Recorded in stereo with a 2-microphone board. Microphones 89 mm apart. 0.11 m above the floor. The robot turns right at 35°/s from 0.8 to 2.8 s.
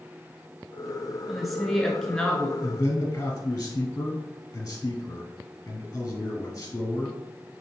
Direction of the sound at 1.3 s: 5° right (ahead or behind).